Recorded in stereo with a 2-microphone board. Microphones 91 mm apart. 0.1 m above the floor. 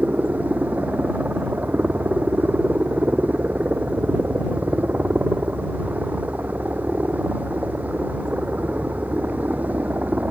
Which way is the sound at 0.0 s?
20° right (ahead or behind).